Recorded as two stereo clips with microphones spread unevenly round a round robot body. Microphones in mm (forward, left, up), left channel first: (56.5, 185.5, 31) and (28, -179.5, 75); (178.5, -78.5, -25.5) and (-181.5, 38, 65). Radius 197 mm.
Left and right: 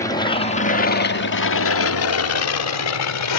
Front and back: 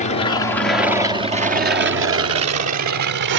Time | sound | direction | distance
0.0 | an aircraft | 20° left | ?